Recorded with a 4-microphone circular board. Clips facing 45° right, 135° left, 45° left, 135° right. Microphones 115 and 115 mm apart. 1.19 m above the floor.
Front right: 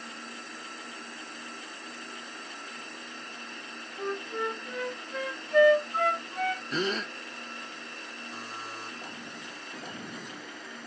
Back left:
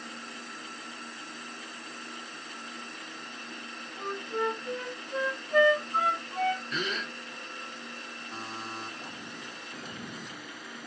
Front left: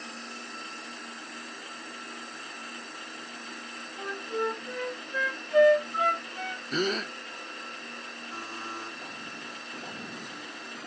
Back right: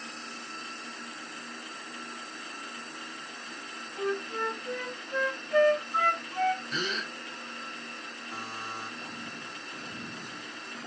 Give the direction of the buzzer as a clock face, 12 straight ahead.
7 o'clock.